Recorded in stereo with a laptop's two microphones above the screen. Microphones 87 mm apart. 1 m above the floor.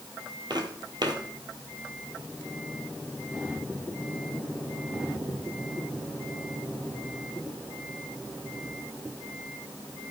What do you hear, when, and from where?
0.5 s footsteps: 50° right (ahead or behind), 1.5 m